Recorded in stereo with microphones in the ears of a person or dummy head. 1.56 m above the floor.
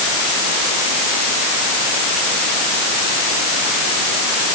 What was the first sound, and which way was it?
Only background noise.